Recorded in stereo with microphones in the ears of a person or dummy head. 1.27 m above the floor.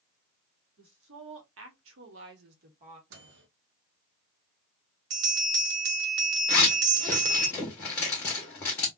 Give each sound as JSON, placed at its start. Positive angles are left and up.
{"t": 0.8, "sound": "a woman speaking", "side_deg": -60, "distance_m": 1.2}
{"t": 3.1, "sound": "a microwave", "side_deg": -70, "distance_m": 0.8}
{"t": 5.1, "sound": "a bell", "side_deg": -80, "distance_m": 0.9}
{"t": 6.5, "sound": "a zipper", "side_deg": 10, "distance_m": 0.8}